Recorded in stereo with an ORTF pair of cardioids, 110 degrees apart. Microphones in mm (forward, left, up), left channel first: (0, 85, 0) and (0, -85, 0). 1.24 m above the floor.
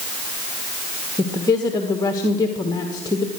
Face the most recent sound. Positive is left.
turn(degrees=25)